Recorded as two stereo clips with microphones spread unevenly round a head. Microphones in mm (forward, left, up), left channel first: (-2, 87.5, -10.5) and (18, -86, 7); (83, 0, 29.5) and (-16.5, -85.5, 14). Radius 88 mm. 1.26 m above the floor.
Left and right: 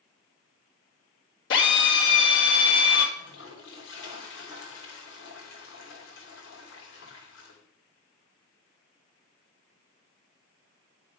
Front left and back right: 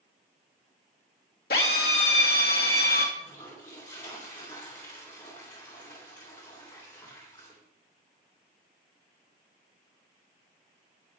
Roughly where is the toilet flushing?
Behind left.